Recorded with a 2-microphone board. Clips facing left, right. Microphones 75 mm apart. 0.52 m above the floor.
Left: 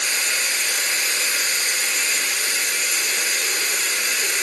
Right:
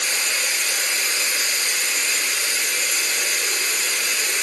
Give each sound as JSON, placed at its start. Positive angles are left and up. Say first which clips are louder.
{"t": 0.0, "sound": "running water", "louder": "even", "side_deg": 40, "distance_m": 2.0}